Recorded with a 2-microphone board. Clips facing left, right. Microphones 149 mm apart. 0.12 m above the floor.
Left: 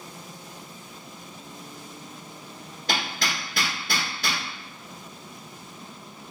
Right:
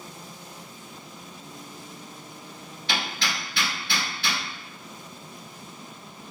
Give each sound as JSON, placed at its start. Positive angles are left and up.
{"t": 2.9, "sound": "hammering", "side_deg": 45, "distance_m": 1.5}